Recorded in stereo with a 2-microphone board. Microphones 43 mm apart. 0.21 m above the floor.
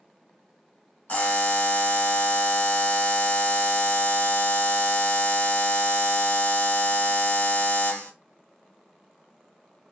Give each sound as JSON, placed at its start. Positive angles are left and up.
{"t": 1.1, "sound": "a buzzer", "side_deg": 40, "distance_m": 1.2}